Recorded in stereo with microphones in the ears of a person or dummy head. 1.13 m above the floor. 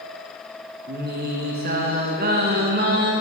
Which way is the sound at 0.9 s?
45° right (ahead or behind).